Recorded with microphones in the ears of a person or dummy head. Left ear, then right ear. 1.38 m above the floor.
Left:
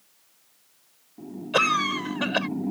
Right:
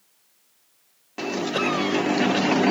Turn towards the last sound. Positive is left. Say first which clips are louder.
# left 3 dB
turn(degrees=35)  # may be behind; listen again after turning